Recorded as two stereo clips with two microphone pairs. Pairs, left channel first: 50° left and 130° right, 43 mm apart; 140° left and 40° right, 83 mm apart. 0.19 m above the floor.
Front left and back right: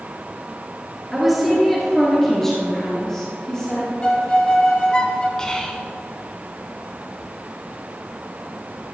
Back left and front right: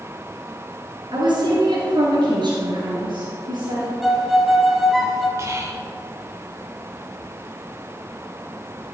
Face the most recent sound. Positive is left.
turn(degrees=-10)